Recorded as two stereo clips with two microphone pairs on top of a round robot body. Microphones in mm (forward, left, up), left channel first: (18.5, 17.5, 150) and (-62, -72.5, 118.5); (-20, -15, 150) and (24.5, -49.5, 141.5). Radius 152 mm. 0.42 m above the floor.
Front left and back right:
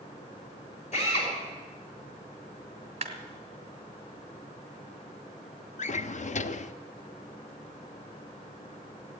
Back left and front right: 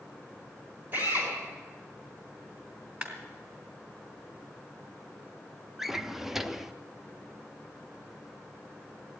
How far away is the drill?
About 5.5 m.